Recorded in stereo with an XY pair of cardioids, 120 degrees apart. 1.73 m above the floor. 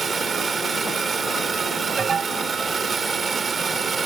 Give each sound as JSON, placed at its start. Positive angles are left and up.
{"t": 0.0, "sound": "a machine running", "azimuth_deg": -30}
{"t": 2.0, "sound": "an alarm", "azimuth_deg": -40}